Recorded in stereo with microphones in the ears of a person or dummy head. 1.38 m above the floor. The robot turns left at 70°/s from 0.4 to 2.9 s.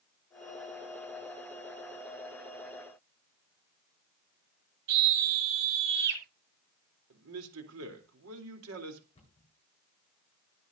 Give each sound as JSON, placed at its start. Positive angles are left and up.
{"t": 4.9, "sound": "a scream", "side_deg": -60, "distance_m": 8.0}
{"t": 7.1, "sound": "a man speaking", "side_deg": -85, "distance_m": 3.5}
{"t": 9.2, "sound": "a cupboard door", "side_deg": 30, "distance_m": 9.5}